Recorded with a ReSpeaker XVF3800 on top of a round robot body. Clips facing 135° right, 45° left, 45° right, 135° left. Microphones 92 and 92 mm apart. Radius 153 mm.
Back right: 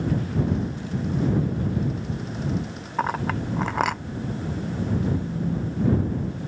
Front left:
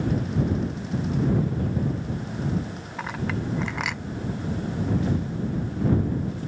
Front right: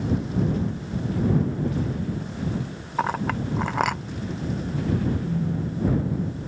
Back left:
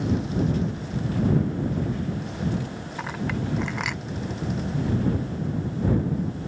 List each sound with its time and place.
3.0 s a clink: 90° right
5.2 s a phone buzzing: 60° right